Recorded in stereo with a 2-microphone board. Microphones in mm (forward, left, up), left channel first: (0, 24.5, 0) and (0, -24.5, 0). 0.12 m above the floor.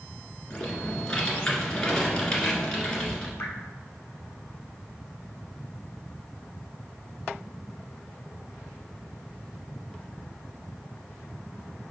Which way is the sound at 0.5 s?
15° left (ahead or behind).